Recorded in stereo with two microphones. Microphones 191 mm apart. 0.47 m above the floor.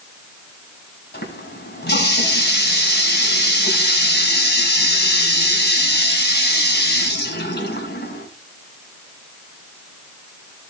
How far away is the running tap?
About 3 m.